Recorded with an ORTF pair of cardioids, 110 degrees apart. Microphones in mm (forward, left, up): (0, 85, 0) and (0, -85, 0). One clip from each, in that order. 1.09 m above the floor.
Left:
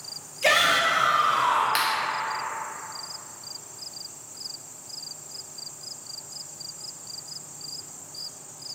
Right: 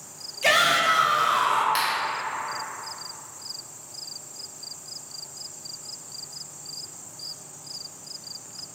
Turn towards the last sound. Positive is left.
turn(degrees=10)